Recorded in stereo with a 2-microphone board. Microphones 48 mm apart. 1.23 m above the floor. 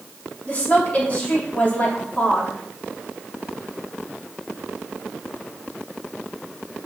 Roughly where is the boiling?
No boiling in this recording.